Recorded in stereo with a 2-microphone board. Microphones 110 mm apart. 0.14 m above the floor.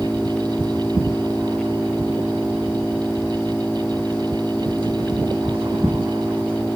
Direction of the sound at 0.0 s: 10° left (ahead or behind).